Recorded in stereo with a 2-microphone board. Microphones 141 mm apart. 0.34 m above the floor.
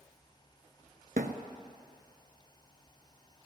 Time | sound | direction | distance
1.2 | a thud | 85° right | 0.9 m